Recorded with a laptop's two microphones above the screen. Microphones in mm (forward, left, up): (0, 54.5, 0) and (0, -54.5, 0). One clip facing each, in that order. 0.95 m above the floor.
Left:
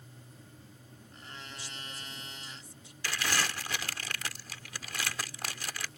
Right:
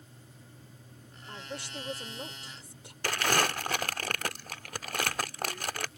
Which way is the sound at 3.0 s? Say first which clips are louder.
Right 5 dB; 50° right (ahead or behind).